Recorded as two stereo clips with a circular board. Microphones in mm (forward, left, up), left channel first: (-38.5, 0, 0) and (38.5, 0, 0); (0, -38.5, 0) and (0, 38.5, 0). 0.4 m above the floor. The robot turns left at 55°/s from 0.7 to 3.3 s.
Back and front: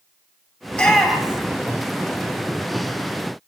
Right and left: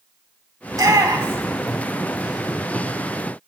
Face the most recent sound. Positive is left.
turn(degrees=-35)